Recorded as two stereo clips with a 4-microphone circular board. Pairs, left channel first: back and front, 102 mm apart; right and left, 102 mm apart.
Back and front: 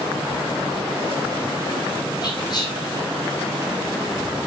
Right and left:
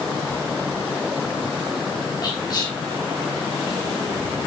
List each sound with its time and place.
2.2 s whispering: 135° right, 3.5 m